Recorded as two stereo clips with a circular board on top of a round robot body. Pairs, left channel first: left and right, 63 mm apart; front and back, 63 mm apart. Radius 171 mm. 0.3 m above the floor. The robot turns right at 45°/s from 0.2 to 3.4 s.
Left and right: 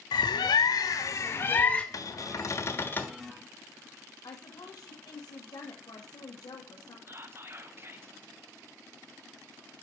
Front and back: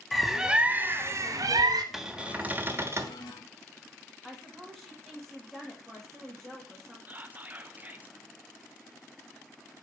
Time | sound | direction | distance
0.1 | a bird | 90° left | 0.5 m
1.9 | a cupboard door | 95° left | 1.4 m
4.2 | a woman speaking | 90° left | 2.5 m
7.1 | whispering | 125° right | 1.6 m